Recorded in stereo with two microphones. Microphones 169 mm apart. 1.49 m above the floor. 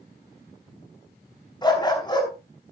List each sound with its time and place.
1.6 s a dog barking: 25° left (ahead or behind), 5.5 m